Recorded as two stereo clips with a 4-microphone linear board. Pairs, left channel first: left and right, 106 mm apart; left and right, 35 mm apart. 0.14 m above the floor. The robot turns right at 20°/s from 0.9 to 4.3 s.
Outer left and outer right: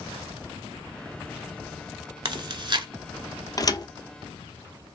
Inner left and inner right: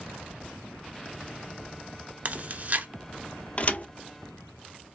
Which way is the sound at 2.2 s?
45° right (ahead or behind).